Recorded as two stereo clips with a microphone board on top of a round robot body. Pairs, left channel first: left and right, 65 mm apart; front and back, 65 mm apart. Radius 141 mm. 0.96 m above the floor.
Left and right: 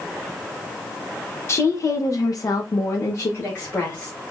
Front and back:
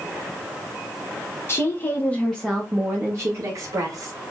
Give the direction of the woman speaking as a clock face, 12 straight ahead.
11 o'clock.